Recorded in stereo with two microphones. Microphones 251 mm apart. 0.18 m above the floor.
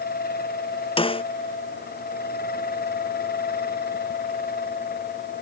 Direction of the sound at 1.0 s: 20° left (ahead or behind).